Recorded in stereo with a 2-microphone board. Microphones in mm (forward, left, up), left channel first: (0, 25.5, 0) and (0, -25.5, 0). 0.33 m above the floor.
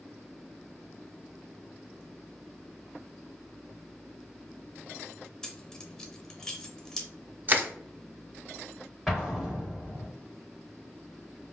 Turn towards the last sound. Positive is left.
turn(degrees=0)  # may be behind; listen again after turning